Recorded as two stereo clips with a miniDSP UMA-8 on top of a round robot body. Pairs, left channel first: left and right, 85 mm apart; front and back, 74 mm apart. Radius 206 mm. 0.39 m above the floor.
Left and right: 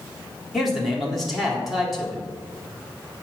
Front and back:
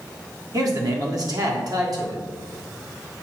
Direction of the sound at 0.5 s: Straight behind.